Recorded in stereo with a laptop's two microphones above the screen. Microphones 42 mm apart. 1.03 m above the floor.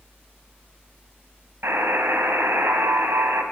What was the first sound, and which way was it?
A buzzer, 75° right (ahead or behind).